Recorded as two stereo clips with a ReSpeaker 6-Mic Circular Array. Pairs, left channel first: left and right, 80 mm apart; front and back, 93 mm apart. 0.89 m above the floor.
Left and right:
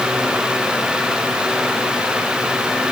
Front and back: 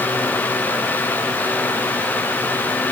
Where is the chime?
No chime in this recording.